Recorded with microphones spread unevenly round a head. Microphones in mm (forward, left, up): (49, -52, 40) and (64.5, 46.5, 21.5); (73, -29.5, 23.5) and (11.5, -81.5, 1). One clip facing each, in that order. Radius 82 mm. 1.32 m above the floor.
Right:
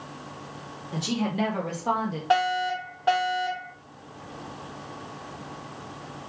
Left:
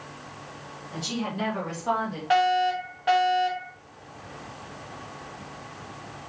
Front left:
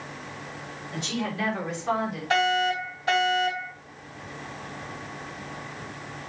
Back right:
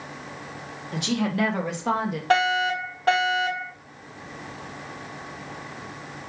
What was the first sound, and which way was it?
A woman speaking, 140° right.